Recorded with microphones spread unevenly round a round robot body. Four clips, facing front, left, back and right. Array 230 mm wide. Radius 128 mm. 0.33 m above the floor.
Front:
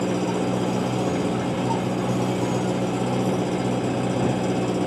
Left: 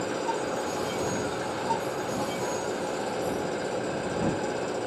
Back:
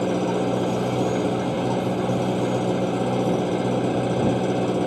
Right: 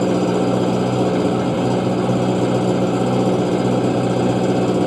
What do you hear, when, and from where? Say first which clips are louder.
0.0 s an engine running: right 12 dB, back 1 dB; 80° right